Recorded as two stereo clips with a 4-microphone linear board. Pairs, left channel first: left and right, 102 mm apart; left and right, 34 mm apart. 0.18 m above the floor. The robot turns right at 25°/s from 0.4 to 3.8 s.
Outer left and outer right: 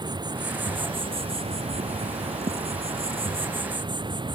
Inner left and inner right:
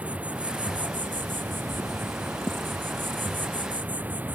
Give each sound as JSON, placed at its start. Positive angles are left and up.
{"t": 0.0, "sound": "an insect", "azimuth_deg": -135}